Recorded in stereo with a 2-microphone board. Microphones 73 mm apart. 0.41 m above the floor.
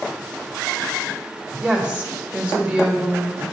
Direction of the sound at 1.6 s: 15° right (ahead or behind).